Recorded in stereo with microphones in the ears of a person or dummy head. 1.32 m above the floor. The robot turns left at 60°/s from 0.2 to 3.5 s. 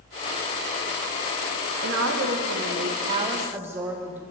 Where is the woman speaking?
65° right, 1.6 m; by 4.2 s 170° right, 1.6 m.